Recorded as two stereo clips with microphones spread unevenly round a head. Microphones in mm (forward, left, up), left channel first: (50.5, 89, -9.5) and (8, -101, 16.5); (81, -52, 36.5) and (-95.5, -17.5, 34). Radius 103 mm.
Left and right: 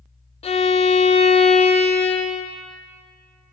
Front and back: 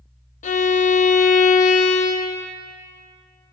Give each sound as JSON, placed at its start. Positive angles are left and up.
{"t": 0.4, "sound": "a violin", "azimuth_deg": 30, "distance_m": 0.6}